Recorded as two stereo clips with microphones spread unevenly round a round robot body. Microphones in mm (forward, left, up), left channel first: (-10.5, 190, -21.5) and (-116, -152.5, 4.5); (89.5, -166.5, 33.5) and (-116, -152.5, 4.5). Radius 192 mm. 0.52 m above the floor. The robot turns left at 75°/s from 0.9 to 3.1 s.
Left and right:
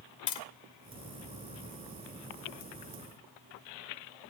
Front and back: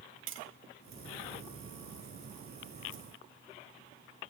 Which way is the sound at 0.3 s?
135° left.